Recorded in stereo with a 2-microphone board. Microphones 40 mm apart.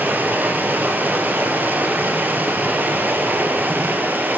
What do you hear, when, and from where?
0.0 s running water: 45° right (ahead or behind), 0.8 m